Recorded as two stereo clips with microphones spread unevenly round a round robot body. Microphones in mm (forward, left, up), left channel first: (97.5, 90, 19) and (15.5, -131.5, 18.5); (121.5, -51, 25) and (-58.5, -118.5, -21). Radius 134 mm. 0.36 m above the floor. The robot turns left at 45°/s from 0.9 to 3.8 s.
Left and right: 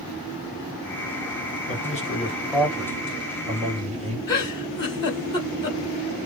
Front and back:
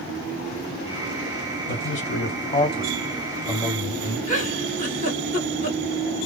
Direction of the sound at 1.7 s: 35° left.